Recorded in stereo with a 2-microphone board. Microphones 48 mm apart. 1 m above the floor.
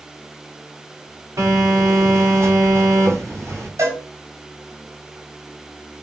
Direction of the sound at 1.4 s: 85° right.